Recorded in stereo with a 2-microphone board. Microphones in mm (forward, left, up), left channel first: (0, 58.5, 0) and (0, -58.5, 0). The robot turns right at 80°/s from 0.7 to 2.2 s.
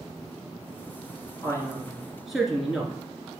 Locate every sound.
1.4 s a man speaking: 120° left, 1.4 m; by 3.0 s 175° right, 1.4 m